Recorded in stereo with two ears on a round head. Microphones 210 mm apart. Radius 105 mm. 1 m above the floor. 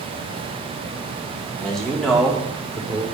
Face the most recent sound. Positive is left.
turn(degrees=-5)  # may be behind; listen again after turning